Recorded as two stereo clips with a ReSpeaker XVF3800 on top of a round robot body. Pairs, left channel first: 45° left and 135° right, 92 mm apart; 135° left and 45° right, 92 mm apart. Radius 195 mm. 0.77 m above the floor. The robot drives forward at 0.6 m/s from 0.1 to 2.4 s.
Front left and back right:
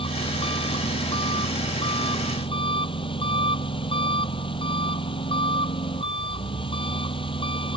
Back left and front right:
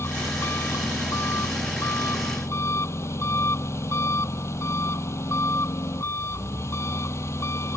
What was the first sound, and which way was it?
An engine running, 70° left.